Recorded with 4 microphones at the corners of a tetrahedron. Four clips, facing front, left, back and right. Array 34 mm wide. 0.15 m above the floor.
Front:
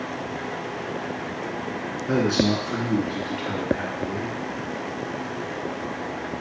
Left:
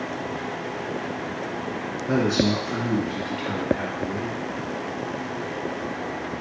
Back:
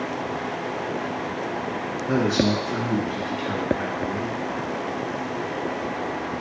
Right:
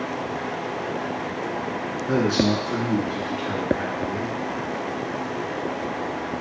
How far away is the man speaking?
About 1.8 m.